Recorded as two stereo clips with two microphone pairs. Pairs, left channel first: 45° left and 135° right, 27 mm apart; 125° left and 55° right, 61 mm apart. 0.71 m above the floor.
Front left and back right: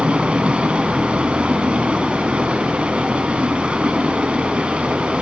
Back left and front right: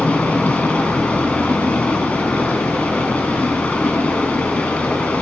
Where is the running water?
170° right, 1.2 m.